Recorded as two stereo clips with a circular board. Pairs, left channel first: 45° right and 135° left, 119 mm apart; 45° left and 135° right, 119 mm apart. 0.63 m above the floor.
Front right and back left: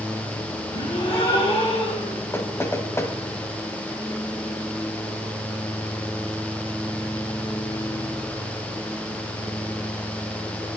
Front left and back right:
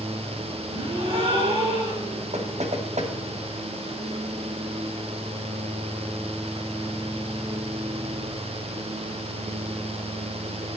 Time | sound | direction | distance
0.7 | a gasp | 95° right | 8.5 m
2.3 | knocking | 115° right | 2.5 m